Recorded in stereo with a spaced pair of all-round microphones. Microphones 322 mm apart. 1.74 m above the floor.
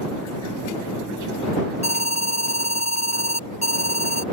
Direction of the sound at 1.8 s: 55° left (ahead or behind).